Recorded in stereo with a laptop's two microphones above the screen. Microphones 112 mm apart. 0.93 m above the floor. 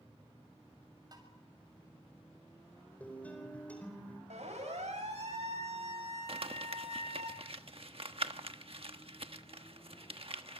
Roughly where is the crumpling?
Right.